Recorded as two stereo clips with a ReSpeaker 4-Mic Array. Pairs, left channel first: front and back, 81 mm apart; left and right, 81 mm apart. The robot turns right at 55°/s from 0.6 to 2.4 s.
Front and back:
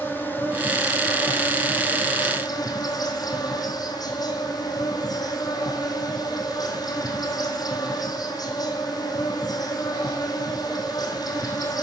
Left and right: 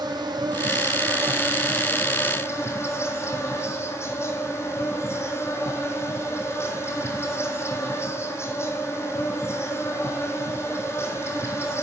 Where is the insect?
65° right, 1.1 m; by 11.8 s 35° left, 1.1 m.